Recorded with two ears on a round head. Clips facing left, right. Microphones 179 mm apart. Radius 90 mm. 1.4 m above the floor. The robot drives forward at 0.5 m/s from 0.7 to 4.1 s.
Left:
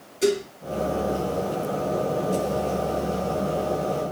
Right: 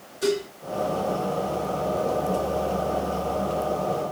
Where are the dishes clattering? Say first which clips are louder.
Left 2 dB; 30° left (ahead or behind), 2.5 m.